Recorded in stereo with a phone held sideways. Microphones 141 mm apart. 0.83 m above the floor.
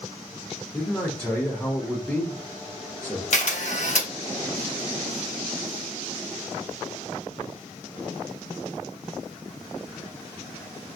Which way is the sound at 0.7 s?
10° left (ahead or behind).